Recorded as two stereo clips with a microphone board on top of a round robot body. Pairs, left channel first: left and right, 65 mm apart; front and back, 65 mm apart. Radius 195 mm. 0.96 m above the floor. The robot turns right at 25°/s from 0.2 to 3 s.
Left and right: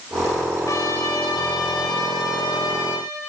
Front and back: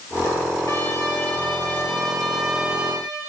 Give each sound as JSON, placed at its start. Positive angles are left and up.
{"t": 0.7, "sound": "a trumpet", "azimuth_deg": 50, "distance_m": 3.0}